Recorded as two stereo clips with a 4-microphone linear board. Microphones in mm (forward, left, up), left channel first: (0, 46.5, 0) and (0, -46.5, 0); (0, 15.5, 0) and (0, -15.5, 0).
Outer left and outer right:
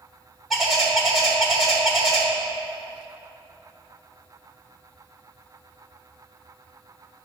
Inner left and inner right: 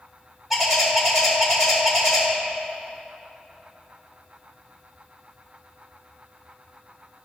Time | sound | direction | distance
0.5 | a bird | centre (ahead or behind) | 1.9 m